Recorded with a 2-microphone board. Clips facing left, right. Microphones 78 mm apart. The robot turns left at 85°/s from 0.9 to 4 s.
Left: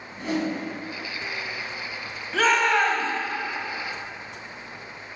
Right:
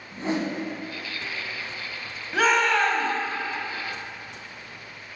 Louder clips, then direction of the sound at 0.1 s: Even; 35° right (ahead or behind).